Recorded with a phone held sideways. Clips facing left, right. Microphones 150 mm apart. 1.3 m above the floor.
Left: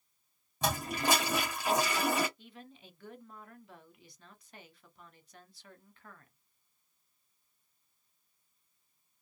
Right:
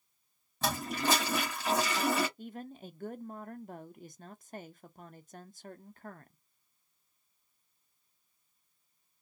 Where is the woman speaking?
50° right (ahead or behind), 0.5 m.